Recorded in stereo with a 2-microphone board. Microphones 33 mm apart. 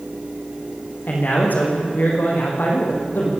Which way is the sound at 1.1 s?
75° left (ahead or behind).